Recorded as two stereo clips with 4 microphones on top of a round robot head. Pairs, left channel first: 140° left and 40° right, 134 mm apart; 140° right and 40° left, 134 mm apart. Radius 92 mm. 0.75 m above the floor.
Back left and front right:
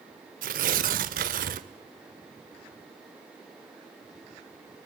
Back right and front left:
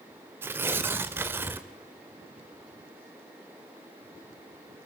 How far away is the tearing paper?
About 0.5 m.